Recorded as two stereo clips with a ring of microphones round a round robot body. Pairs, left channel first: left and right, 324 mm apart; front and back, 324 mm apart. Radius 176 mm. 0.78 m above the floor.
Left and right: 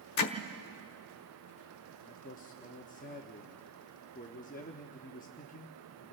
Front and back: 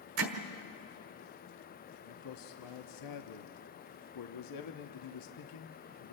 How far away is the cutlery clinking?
I don't hear cutlery clinking.